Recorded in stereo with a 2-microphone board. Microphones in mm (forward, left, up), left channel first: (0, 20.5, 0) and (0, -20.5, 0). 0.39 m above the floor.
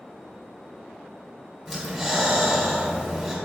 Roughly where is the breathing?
Centre.